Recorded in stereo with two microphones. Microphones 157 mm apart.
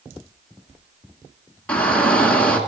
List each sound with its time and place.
1.7 s a shout: 10° left (ahead or behind), 1.8 m